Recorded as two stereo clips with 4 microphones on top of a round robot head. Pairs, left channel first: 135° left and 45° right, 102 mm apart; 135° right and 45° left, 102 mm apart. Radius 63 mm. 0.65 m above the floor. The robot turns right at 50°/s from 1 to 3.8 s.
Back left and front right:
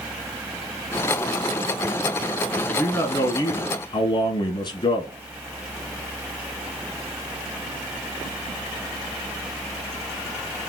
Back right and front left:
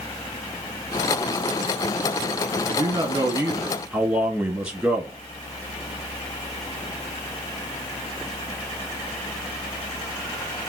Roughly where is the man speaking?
Ahead left.